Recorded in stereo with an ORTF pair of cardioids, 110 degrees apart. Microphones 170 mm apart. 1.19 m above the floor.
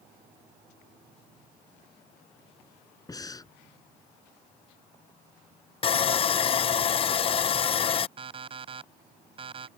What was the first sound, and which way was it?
Breathing, 20° left.